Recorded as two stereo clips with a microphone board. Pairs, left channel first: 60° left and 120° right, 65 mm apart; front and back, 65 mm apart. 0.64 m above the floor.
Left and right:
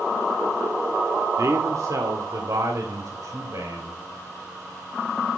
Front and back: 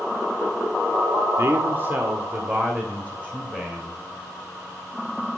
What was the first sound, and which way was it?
A man speaking, 140° right.